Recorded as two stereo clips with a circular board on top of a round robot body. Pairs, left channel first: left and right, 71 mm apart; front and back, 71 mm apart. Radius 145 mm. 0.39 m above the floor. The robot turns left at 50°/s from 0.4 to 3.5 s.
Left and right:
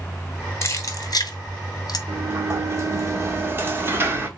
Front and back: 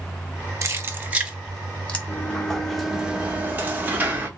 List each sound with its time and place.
0.6 s keys jangling: 135° left, 1.2 m; by 2.0 s 70° left, 1.2 m
2.1 s a sliding door: 55° right, 1.4 m; by 4.3 s 125° right, 1.4 m